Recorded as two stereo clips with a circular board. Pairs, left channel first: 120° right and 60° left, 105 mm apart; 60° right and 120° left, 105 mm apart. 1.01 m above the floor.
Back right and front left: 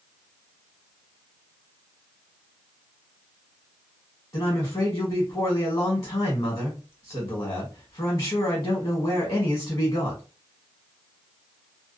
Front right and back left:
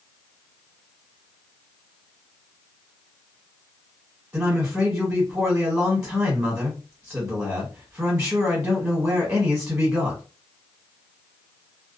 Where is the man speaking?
165° right, 1.2 m.